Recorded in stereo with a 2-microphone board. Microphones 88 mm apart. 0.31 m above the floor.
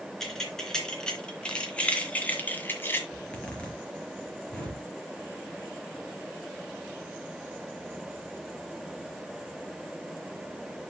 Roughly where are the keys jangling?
Centre.